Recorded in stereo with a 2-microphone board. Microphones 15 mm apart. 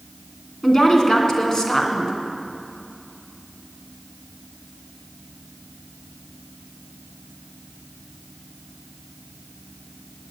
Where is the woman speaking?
40° left (ahead or behind), 2.5 m.